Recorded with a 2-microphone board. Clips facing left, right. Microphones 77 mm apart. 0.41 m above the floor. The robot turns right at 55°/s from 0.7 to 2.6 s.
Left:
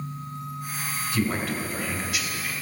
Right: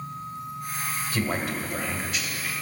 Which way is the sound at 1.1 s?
50° right.